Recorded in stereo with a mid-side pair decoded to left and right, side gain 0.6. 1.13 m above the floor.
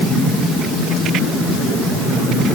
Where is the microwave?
I don't hear a microwave.